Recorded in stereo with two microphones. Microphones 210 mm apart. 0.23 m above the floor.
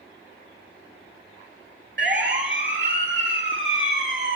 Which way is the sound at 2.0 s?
55° right (ahead or behind).